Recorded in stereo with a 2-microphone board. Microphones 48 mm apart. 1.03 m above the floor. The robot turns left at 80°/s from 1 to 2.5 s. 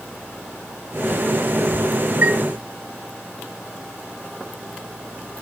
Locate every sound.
2.2 s a chime: 35° right (ahead or behind), 0.8 m; by 2.4 s 50° right (ahead or behind), 0.8 m